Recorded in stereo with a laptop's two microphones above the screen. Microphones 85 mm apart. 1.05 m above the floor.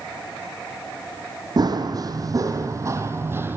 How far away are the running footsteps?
About 2.5 m.